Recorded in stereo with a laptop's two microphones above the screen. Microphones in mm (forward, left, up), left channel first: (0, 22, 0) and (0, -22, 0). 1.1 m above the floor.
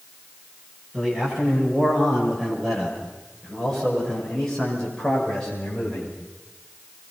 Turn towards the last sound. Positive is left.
turn(degrees=20)  # may be behind; listen again after turning